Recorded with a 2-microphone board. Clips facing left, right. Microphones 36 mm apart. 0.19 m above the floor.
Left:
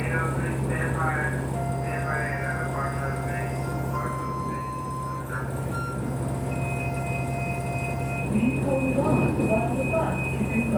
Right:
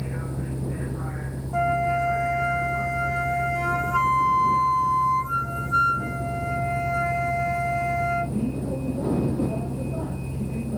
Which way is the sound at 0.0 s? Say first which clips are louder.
Left 6 dB; 80° left.